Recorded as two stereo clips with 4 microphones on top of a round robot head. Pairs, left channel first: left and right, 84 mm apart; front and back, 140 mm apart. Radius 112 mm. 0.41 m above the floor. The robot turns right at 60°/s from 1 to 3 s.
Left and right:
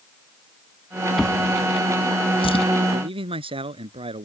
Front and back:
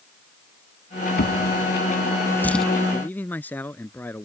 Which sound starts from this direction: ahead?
A drawer, at 1.2 s.